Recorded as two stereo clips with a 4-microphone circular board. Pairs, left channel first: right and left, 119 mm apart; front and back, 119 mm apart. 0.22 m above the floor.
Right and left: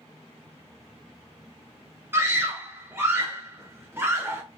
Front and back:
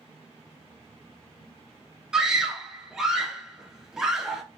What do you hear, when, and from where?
2.1 s a scream: 105° left, 1.0 m